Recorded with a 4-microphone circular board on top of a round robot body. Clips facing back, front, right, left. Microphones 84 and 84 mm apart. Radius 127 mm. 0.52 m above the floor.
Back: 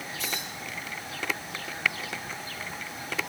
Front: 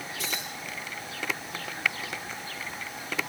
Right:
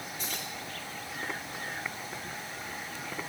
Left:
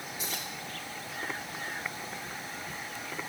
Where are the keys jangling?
5° left, 10 m.